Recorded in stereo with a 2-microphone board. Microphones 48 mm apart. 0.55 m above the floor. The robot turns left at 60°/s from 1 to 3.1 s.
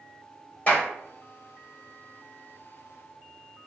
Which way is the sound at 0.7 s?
35° left (ahead or behind).